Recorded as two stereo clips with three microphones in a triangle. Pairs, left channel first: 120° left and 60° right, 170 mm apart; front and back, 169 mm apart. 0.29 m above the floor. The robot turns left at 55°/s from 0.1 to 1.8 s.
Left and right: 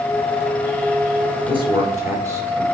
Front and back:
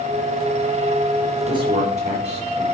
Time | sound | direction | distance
1.5 | a man speaking | 115° right | 4.5 m